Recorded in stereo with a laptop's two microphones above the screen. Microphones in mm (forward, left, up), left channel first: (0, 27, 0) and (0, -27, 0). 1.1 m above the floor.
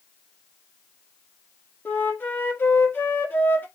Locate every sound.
1.9 s a flute: 40° left (ahead or behind), 1.6 m